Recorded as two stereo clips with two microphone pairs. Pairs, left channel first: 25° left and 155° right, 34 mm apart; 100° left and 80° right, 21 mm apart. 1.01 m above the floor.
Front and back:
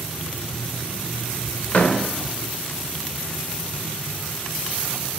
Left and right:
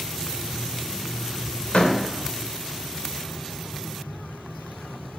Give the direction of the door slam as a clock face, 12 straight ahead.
10 o'clock.